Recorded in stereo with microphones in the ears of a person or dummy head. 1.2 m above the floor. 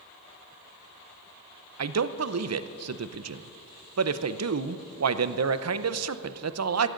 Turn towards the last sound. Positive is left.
turn(degrees=-75)  # may be behind; listen again after turning